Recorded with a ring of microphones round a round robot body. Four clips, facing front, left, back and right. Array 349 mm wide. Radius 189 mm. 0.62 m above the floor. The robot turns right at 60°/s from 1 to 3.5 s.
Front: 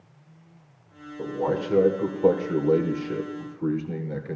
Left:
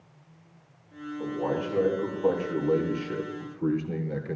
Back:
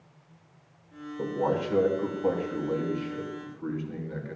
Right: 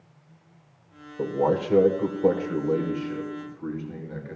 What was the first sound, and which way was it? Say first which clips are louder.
A man speaking: right 6 dB, front 1 dB; 90° right.